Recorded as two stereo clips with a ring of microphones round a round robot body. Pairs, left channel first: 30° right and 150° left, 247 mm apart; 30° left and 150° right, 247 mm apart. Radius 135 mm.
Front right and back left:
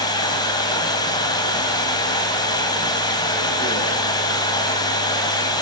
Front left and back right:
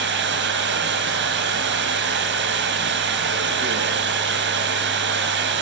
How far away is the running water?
About 4 m.